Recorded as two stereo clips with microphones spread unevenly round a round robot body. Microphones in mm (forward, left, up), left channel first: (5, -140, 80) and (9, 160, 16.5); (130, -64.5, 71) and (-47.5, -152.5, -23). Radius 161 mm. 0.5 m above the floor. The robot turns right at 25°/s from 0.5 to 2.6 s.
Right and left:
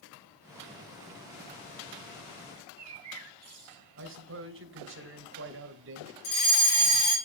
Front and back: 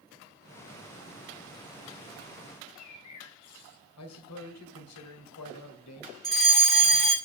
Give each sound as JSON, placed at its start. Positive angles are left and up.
{"t": 2.6, "sound": "a bird", "azimuth_deg": 55, "distance_m": 1.7}
{"t": 4.0, "sound": "a man speaking", "azimuth_deg": 50, "distance_m": 2.5}
{"t": 6.2, "sound": "a fire alarm", "azimuth_deg": -65, "distance_m": 7.0}